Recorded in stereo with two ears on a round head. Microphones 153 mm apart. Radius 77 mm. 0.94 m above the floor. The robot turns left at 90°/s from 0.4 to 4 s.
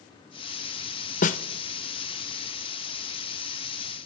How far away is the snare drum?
About 0.7 m.